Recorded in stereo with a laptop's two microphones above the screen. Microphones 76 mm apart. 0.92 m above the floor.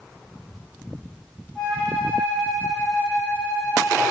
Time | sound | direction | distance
1.6 | a flute | 15° left (ahead or behind) | 4 m